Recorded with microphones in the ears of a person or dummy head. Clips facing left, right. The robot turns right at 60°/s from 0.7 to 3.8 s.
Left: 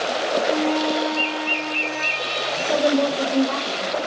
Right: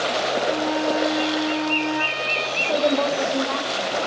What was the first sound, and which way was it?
A flute, 175° right.